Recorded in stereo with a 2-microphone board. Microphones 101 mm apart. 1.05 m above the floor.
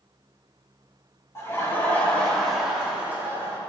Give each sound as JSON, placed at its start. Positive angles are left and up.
{"t": 1.4, "sound": "laughter", "side_deg": 30, "distance_m": 2.0}